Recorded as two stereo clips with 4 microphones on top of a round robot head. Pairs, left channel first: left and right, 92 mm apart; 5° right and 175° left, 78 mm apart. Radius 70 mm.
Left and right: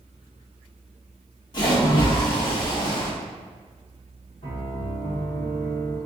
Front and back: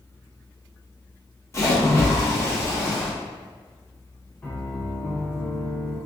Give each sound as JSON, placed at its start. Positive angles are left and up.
{"t": 1.5, "sound": "a splash", "azimuth_deg": 45, "distance_m": 1.1}
{"t": 4.4, "sound": "a piano", "azimuth_deg": 65, "distance_m": 1.4}